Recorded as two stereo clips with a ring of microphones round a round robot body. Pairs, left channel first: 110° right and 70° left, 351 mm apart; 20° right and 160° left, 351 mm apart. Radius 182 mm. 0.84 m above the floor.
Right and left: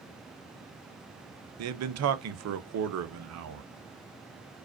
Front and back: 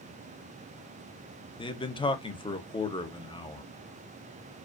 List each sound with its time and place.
1.6 s a man speaking: 50° left, 0.7 m